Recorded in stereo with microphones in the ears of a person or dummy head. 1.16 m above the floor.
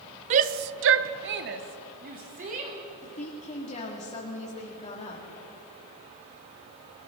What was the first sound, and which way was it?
A shout, 35° right (ahead or behind).